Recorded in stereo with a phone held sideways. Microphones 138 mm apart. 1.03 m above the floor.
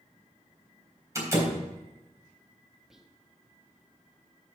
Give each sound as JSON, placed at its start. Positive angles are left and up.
{"t": 1.1, "sound": "a door slam", "side_deg": -25, "distance_m": 3.5}
{"t": 2.9, "sound": "whispering", "side_deg": -5, "distance_m": 1.3}